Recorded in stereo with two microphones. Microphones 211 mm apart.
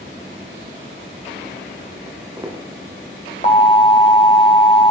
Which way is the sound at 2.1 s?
15° right (ahead or behind).